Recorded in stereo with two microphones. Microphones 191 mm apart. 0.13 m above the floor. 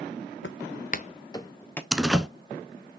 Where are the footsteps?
85° left, 0.7 m; by 1.8 s 10° left (ahead or behind), 1.5 m.